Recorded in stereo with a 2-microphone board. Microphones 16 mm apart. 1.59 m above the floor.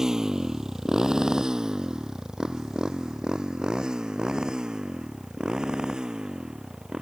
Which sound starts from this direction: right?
A motorcycle, at 0.0 s.